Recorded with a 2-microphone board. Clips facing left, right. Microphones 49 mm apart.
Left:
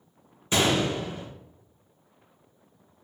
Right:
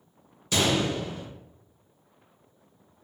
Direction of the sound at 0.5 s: 30° left (ahead or behind).